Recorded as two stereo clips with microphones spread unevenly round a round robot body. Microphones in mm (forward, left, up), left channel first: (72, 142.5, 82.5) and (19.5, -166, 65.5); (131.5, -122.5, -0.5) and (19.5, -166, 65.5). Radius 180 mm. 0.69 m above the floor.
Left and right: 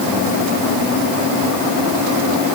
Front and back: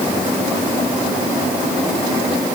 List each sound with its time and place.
Only background noise.